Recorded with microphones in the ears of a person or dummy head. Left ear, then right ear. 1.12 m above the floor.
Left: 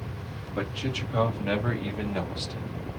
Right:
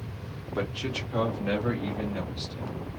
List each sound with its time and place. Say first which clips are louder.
0.6 s a man speaking: even; 15° right (ahead or behind), 1.0 m; by 2.8 s 55° left (ahead or behind), 1.1 m